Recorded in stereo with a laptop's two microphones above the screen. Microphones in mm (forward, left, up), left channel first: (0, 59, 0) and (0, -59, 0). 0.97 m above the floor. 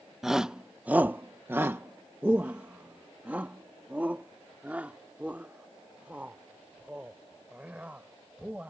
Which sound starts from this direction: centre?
A shout, at 0.2 s.